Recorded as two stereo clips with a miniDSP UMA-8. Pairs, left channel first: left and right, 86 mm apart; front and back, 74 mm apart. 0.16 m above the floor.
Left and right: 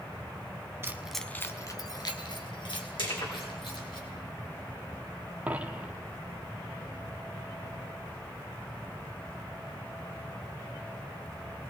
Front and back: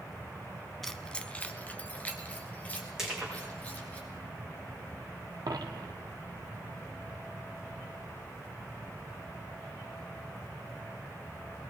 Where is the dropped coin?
165° right, 1.2 m.